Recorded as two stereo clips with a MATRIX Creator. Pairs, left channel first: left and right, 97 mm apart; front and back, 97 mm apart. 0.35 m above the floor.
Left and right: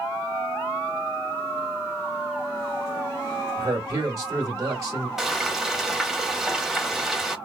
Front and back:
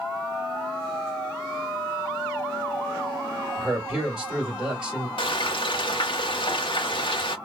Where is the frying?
5° right, 0.7 m.